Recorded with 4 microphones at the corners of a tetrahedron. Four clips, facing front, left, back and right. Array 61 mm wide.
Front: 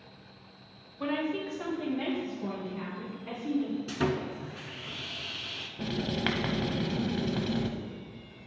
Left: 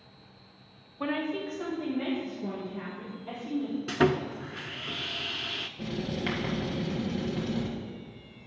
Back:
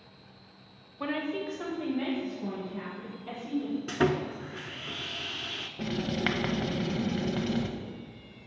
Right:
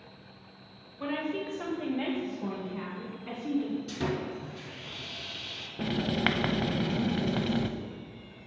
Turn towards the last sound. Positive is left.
turn(degrees=-100)